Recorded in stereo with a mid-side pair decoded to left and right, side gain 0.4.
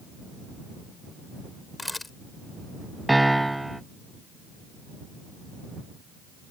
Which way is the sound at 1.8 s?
15° left.